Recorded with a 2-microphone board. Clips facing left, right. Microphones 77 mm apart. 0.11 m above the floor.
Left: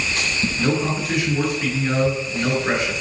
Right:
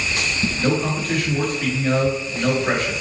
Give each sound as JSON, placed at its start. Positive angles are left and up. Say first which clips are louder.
{"t": 0.6, "sound": "a man speaking", "louder": "even", "side_deg": 10, "distance_m": 1.2}